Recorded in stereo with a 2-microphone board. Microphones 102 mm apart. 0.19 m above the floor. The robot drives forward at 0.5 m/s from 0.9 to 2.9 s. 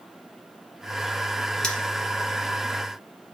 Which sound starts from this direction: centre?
Cutlery clinking, at 1.6 s.